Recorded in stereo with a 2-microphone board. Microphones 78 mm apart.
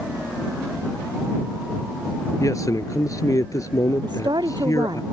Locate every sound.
2.4 s a man speaking: 50° left (ahead or behind)
4.0 s a woman speaking: 75° right (ahead or behind)